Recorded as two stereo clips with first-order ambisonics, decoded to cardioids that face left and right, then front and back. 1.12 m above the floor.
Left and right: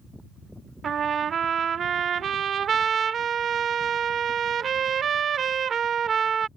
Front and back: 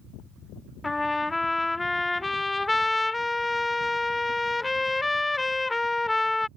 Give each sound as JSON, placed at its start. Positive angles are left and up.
{"t": 0.8, "sound": "a trumpet", "azimuth_deg": -70}